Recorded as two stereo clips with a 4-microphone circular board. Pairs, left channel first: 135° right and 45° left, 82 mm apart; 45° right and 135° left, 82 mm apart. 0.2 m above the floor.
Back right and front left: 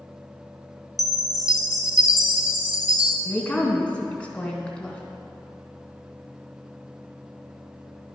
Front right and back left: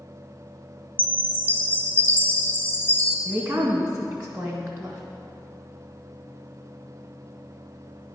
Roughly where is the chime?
Right.